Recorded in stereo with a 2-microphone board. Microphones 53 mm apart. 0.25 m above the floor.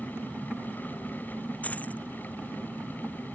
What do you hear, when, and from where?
1.6 s keys jangling: 30° left (ahead or behind)